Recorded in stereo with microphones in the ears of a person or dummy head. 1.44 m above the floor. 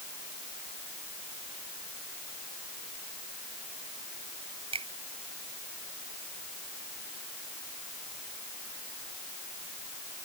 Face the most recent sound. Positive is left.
turn(degrees=-30)  # may be behind; listen again after turning